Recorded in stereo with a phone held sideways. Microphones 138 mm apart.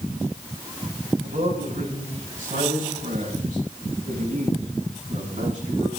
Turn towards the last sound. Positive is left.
turn(degrees=-60)  # may be behind; listen again after turning